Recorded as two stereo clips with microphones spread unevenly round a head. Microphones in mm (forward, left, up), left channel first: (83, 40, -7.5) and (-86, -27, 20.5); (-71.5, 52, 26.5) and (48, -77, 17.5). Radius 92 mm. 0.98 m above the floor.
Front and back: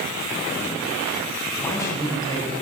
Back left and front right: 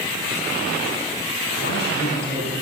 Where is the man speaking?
95° left, 9 m.